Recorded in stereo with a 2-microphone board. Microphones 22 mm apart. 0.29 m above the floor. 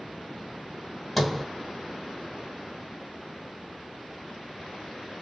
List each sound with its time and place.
1.2 s a sliding door: 5° left (ahead or behind), 1.7 m